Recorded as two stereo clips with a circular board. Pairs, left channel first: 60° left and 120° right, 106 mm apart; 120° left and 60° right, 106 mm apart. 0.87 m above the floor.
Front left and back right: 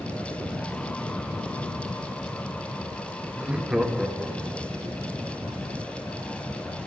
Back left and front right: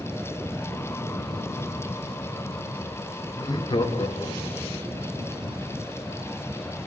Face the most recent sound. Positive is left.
turn(degrees=145)